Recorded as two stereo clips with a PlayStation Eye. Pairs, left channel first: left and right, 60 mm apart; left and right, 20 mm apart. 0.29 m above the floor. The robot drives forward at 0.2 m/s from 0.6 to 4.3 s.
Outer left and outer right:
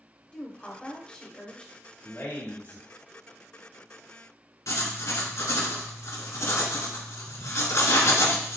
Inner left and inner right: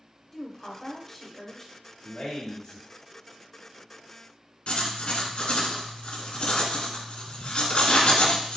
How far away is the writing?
About 1.1 m.